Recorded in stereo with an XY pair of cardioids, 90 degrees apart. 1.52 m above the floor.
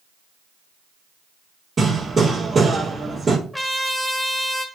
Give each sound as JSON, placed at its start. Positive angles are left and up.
{"t": 1.8, "sound": "hammering", "azimuth_deg": -35, "distance_m": 3.0}
{"t": 3.5, "sound": "a trumpet", "azimuth_deg": 5, "distance_m": 1.6}